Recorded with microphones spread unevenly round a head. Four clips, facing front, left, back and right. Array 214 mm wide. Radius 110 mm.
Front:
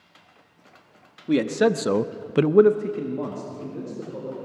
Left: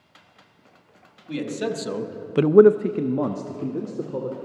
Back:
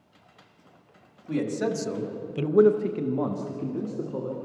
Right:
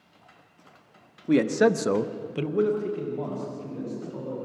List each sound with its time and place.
1.3 s a man speaking: 45° right, 1.7 m; by 4.4 s 105° left, 3 m